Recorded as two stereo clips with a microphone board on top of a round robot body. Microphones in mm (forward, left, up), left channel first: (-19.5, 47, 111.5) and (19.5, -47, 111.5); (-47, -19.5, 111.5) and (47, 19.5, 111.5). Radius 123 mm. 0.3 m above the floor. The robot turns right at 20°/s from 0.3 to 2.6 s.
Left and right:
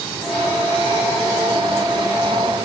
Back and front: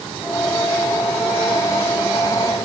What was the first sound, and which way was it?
Only background noise.